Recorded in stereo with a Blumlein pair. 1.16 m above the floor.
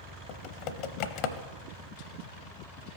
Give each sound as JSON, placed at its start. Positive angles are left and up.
{"t": 0.3, "sound": "typing on a keyboard", "azimuth_deg": 45, "distance_m": 0.6}